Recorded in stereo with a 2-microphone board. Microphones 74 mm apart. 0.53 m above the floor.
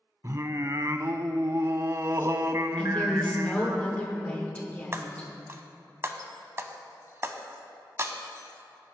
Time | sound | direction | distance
0.2 | singing | 45° right (ahead or behind) | 0.5 m
2.8 | a woman speaking | 20° left (ahead or behind) | 1.7 m
4.9 | breaking glass | 35° right (ahead or behind) | 0.8 m